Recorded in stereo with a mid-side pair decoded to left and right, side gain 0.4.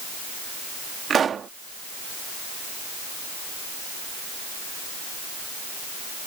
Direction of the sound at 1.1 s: 55° right.